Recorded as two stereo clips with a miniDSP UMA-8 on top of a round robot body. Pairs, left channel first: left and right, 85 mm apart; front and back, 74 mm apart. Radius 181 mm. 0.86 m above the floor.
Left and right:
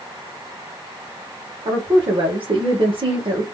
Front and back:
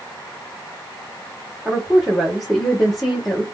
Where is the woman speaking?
90° right, 1.3 m.